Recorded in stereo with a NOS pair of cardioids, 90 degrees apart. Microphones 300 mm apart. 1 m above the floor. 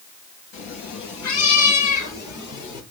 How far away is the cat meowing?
About 5 m.